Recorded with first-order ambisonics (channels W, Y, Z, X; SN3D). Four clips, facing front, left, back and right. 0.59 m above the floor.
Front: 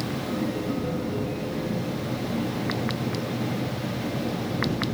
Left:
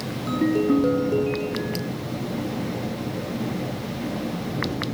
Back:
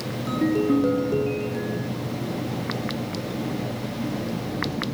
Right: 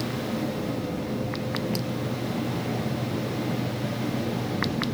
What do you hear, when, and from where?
0.3 s a ringtone: 125° left